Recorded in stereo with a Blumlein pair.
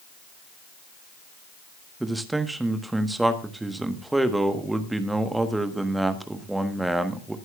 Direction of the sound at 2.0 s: 5° right.